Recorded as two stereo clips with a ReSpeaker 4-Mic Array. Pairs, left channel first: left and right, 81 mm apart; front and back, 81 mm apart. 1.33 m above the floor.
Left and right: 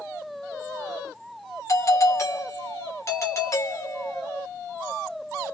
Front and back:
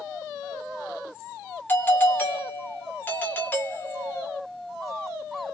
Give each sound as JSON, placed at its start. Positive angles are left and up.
{"t": 1.7, "sound": "a doorbell", "azimuth_deg": 55, "distance_m": 1.0}